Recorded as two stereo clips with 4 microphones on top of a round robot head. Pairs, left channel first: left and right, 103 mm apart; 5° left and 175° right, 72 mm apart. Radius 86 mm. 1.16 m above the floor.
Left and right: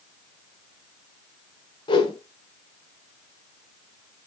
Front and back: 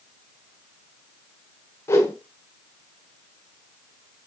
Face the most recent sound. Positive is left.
turn(degrees=50)